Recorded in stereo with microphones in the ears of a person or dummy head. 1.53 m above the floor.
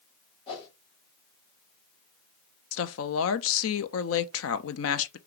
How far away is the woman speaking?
About 0.6 m.